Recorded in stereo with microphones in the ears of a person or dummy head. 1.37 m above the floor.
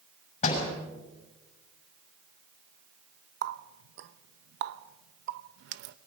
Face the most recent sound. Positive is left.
turn(degrees=-55)  # may be behind; listen again after turning